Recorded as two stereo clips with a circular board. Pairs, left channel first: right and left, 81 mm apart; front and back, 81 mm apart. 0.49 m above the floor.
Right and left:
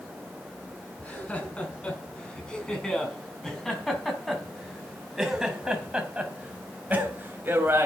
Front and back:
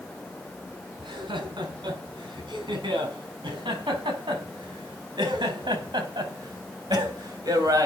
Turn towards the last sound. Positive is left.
turn(degrees=145)